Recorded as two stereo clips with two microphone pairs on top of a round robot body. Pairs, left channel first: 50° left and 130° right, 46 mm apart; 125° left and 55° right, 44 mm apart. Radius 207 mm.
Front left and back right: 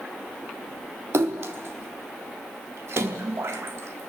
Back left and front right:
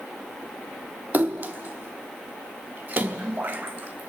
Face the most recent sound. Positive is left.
turn(degrees=-105)